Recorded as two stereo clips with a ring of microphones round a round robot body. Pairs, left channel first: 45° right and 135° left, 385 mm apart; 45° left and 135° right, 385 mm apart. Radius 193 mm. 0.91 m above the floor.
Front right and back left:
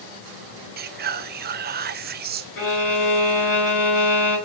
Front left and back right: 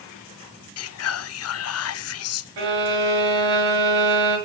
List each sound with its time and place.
0.8 s whispering: 80° left, 0.8 m
2.6 s a violin: 105° right, 7 m